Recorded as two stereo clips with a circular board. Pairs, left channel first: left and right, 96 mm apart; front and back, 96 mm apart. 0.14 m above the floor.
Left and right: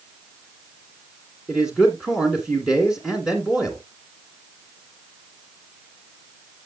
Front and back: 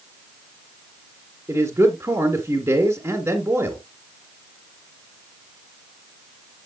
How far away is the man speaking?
About 1.6 m.